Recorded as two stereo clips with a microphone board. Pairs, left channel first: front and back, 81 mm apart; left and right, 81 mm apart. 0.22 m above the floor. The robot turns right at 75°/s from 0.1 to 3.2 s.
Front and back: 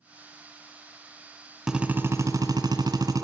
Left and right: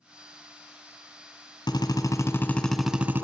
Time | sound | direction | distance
1.7 | a drill | 95° left | 1.7 m